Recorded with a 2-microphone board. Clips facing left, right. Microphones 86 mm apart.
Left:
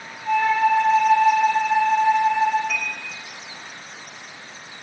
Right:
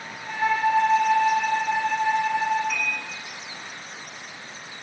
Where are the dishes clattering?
75° left (ahead or behind), 5 m.